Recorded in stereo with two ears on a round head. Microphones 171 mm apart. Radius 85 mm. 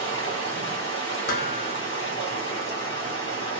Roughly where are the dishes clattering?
Left.